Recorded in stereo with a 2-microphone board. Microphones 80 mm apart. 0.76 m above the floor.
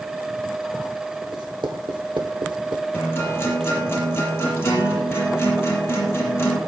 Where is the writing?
75° right (ahead or behind), 2.5 m.